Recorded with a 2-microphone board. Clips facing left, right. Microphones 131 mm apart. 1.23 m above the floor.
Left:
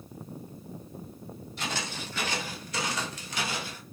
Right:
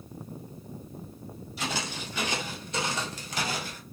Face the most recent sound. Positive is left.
turn(degrees=-45)  # may be behind; listen again after turning